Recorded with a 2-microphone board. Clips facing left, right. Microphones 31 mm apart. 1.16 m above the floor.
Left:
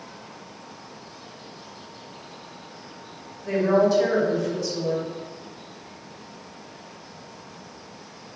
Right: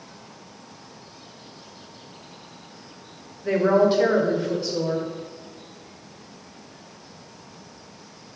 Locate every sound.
3.5 s a woman speaking: 40° right (ahead or behind), 0.5 m